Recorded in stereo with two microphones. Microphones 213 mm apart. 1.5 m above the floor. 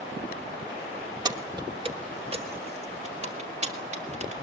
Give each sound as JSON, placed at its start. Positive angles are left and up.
{"t": 1.2, "sound": "keys jangling", "side_deg": -20, "distance_m": 1.2}